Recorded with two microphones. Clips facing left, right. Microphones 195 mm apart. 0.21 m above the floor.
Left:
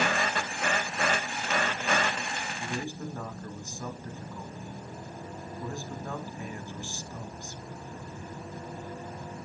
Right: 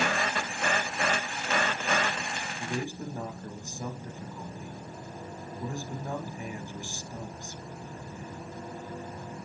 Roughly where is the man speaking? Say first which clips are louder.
Right 2 dB; centre.